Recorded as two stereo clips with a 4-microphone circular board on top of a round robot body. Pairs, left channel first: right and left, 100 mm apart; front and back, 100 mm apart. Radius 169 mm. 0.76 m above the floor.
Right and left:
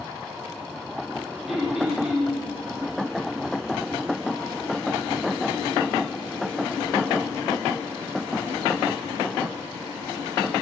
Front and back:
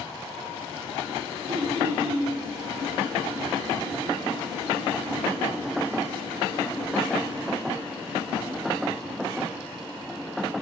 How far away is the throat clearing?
About 3 m.